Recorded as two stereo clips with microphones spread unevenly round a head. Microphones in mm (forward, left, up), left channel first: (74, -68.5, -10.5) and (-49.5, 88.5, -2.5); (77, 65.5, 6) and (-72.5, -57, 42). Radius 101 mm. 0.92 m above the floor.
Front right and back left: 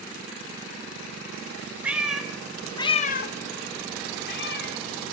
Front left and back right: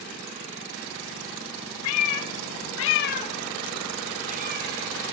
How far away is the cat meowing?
About 1.2 m.